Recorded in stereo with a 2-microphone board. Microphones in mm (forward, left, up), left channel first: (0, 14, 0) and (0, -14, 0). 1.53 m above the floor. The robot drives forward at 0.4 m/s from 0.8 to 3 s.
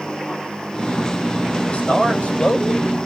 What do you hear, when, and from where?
1.7 s a man speaking: 60° left (ahead or behind), 3 m; by 3.1 s 55° left (ahead or behind), 3 m